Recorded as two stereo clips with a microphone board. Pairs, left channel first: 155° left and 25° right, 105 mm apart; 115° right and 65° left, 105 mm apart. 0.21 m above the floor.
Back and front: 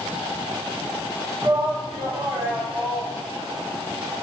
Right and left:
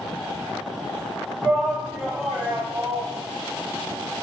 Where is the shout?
25° right, 1.6 m; by 3.2 s 65° left, 1.4 m.